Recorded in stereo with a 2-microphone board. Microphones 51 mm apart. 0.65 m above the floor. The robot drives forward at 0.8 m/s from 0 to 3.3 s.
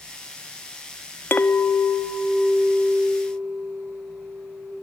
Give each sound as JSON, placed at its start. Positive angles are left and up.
{"t": 1.3, "sound": "a clink", "side_deg": 40, "distance_m": 0.5}